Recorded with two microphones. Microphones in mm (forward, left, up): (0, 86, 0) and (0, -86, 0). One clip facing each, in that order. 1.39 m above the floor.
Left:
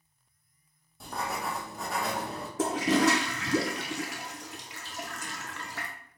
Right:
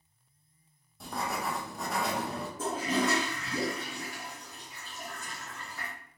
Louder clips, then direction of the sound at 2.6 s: Left 6 dB; 85° left.